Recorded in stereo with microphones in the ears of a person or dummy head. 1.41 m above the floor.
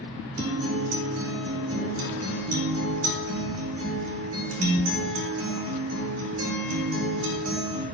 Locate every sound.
0.4 s a guitar: 85° right, 2 m